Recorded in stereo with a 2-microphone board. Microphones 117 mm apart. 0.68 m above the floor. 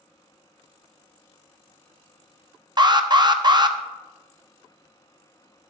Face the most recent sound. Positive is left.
turn(degrees=-35)  # may be behind; listen again after turning